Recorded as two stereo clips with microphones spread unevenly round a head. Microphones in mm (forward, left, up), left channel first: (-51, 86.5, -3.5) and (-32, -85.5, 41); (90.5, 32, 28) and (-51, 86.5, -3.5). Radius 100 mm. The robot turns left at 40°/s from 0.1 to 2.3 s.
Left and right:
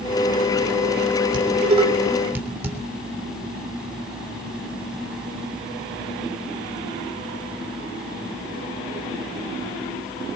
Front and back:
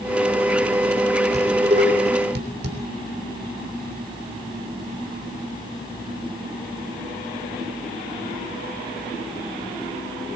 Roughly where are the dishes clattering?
Behind right.